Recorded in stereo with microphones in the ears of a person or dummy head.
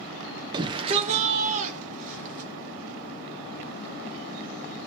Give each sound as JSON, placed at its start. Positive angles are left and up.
{"t": 0.5, "sound": "a shout", "side_deg": -25, "distance_m": 0.7}